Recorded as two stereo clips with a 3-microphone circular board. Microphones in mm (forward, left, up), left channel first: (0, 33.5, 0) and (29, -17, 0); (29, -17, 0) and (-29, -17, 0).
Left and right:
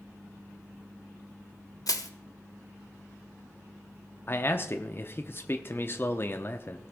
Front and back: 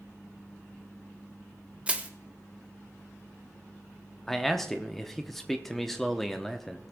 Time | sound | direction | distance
1.9 | crushing | 110° left | 0.9 m
4.3 | a man speaking | 85° left | 0.8 m